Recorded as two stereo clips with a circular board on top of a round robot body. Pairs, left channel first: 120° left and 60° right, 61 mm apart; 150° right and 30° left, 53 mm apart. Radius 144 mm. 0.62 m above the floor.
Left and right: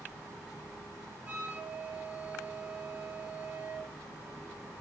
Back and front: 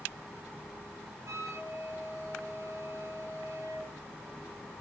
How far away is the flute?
About 7 m.